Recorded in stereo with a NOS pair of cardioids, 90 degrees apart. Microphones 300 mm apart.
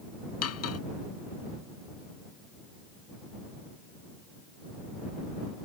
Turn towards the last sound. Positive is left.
turn(degrees=55)